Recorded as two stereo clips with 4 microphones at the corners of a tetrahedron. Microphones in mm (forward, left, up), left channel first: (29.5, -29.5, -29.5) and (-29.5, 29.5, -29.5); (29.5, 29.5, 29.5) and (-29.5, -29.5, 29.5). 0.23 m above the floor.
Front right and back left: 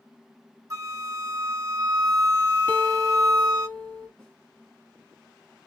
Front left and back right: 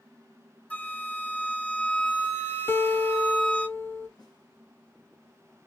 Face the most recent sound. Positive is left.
turn(degrees=40)